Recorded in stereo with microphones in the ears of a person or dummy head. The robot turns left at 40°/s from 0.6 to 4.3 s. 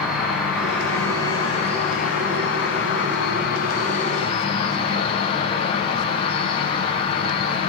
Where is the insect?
175° right, 0.8 m; by 7.7 s 40° left, 0.8 m.